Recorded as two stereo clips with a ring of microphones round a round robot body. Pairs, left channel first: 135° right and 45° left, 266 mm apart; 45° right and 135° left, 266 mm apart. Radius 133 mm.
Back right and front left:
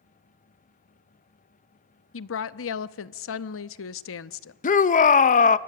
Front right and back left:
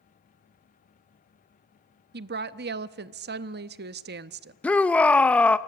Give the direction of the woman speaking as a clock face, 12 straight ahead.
6 o'clock.